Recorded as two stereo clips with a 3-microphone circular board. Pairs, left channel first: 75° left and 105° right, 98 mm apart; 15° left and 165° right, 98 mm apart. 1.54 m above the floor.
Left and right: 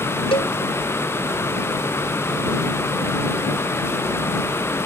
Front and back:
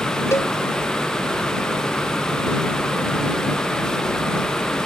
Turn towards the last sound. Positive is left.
turn(degrees=75)